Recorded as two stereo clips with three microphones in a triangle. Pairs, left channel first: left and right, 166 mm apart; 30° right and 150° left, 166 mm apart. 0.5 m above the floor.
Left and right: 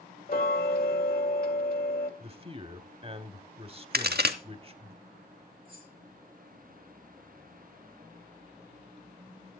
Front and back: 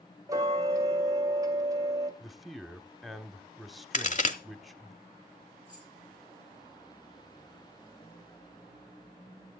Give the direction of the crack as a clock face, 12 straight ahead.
2 o'clock.